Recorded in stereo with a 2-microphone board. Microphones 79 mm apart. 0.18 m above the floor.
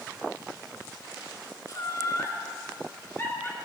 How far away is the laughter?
About 2.5 m.